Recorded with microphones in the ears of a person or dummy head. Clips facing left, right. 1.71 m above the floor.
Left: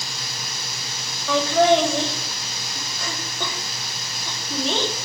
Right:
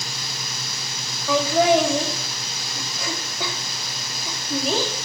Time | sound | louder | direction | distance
1.3 | laughter | left 1 dB | 5° right (ahead or behind) | 3 m